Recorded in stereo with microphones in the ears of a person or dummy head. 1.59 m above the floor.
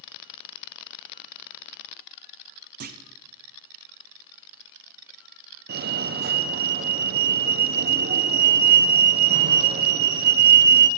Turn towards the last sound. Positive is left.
turn(degrees=-45)  # may be behind; listen again after turning